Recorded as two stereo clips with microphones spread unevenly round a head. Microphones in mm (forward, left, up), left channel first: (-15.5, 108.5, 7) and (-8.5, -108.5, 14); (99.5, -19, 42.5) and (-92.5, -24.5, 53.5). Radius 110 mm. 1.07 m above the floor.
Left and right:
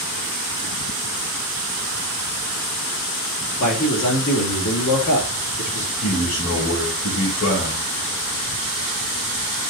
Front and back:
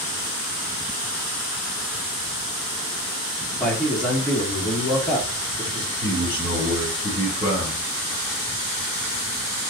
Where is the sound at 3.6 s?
85° left, 2.5 m.